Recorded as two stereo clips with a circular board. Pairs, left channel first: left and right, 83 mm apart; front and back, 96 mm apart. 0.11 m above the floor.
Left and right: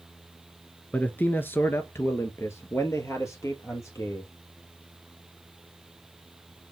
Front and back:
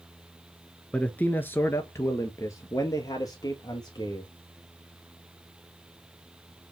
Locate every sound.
0.9 s a man speaking: 55° left, 1.1 m; by 4.3 s 45° left, 2.5 m